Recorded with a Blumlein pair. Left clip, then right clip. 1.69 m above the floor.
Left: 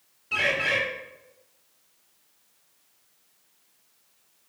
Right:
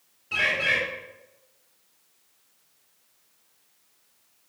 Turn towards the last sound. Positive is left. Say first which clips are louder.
# right 1 dB
turn(degrees=5)